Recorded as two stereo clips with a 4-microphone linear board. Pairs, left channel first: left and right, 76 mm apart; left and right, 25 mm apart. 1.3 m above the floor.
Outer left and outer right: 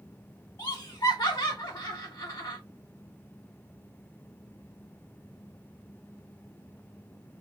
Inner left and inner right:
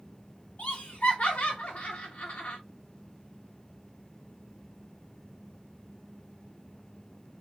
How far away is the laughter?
About 0.8 m.